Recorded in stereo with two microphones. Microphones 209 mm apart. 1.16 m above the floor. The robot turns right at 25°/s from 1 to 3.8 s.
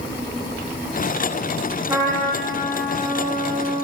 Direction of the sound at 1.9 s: 15° right (ahead or behind).